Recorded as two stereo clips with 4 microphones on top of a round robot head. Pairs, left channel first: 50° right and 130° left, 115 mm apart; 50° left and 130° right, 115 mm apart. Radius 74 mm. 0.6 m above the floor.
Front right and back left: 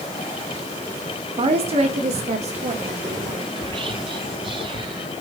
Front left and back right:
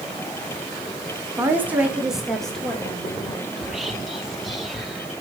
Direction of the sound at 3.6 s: 140° left.